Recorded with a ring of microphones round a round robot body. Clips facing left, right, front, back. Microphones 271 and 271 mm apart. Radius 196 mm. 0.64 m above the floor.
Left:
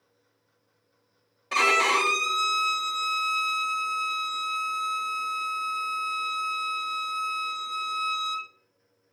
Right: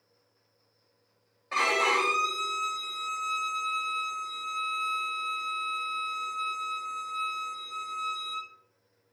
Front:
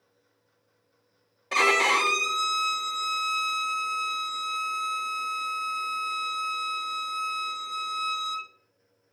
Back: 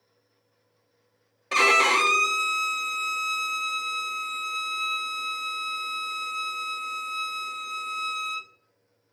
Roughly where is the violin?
Left.